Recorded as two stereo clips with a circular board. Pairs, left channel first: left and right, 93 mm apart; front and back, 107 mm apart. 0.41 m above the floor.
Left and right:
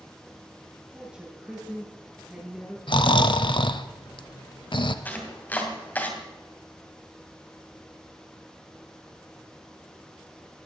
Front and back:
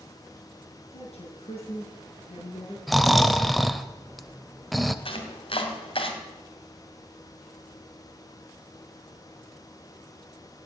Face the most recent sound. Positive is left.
turn(degrees=20)